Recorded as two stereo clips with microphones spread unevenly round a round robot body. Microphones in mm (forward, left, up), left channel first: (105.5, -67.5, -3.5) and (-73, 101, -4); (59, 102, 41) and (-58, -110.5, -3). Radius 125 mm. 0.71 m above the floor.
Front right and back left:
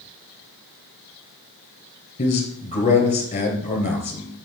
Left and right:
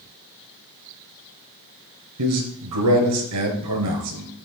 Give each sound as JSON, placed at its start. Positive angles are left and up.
{"t": 2.2, "sound": "a man speaking", "azimuth_deg": -110, "distance_m": 3.0}